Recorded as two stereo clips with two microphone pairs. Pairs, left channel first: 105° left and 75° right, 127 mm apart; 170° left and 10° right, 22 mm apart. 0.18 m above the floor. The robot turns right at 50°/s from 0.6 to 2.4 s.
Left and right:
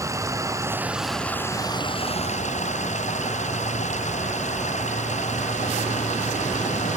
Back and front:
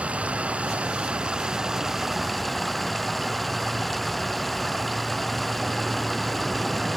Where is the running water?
10° right; by 7.0 s 80° left.